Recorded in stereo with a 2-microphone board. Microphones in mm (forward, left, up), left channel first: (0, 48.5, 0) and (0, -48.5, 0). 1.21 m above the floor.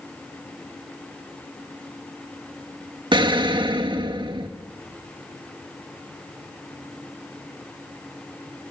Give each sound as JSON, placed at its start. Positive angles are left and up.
{"t": 3.1, "sound": "an explosion", "side_deg": -55, "distance_m": 2.0}